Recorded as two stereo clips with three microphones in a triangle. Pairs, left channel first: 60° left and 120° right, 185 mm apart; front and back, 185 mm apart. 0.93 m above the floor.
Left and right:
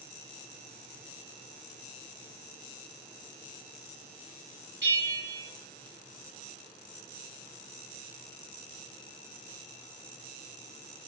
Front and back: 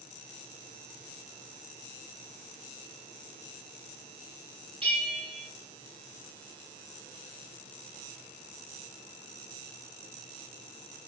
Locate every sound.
4.8 s a bell: 120° right, 3.5 m